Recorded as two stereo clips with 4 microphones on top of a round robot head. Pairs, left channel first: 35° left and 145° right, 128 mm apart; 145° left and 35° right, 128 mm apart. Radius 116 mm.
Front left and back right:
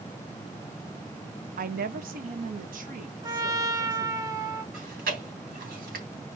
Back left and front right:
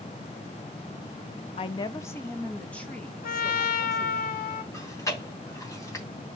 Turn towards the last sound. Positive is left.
turn(degrees=-145)